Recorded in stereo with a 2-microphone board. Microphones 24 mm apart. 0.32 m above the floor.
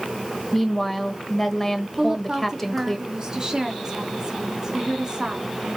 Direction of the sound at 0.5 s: 10° left (ahead or behind).